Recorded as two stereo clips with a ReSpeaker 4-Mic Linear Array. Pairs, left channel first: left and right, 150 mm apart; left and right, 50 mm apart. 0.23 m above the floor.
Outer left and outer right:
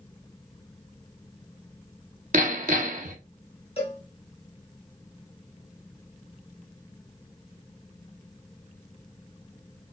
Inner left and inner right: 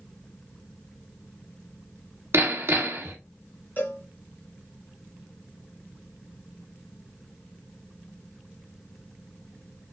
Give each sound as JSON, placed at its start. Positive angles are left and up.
{"t": 2.3, "sound": "hammering", "side_deg": -60, "distance_m": 0.9}
{"t": 3.8, "sound": "a cowbell", "side_deg": 40, "distance_m": 1.7}